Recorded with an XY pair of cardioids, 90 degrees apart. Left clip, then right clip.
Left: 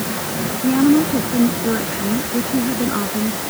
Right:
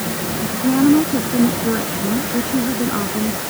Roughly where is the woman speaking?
Ahead.